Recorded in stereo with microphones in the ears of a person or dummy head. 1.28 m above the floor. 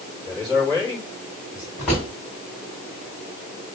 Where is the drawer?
5° left (ahead or behind), 3.5 m.